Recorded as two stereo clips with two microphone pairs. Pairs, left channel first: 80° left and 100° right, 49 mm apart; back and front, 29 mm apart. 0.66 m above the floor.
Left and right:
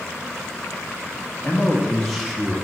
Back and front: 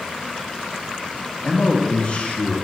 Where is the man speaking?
110° left, 1.2 m; by 2.6 s 175° right, 1.5 m.